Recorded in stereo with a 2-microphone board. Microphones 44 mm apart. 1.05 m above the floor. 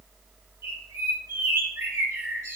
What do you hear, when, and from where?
0.6 s a bird: 85° right, 3 m